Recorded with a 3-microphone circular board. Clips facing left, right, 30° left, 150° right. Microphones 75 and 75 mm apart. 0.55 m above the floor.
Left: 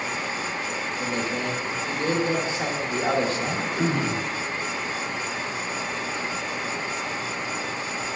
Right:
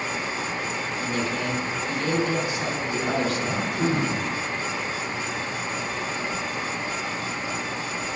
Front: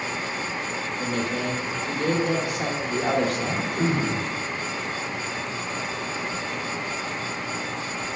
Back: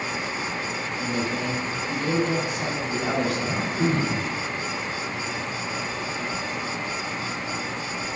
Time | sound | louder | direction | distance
1.0 | a man speaking | even, even | 30° left | 1.4 m
3.4 | throat clearing | even, even | 85° left | 1.9 m